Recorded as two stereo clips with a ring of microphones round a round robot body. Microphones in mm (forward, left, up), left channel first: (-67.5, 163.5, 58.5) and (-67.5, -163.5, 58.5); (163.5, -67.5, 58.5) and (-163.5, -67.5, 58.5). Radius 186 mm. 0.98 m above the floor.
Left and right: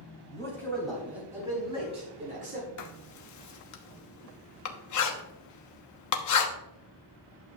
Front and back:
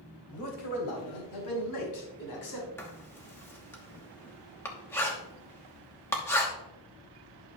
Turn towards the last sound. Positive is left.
turn(degrees=80)